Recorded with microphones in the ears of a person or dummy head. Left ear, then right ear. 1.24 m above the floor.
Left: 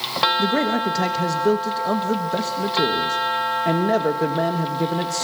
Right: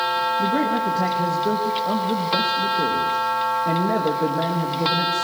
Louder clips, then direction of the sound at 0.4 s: Even; 80° left.